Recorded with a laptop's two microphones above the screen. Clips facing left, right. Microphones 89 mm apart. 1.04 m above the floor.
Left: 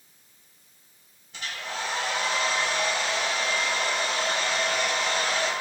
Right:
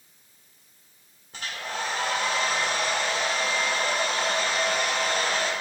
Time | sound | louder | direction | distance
1.3 | a hair dryer | right 1 dB | 45° right (ahead or behind) | 1.7 m